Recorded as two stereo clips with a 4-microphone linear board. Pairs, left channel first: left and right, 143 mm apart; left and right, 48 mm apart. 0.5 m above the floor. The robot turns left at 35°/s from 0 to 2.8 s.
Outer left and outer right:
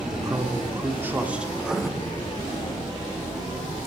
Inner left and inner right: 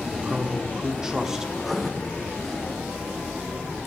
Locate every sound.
0.1 s a man speaking: 120° right, 0.9 m; by 1.4 s 170° right, 0.9 m
1.6 s writing: 10° right (ahead or behind), 0.5 m; by 1.9 s centre (ahead or behind), 0.5 m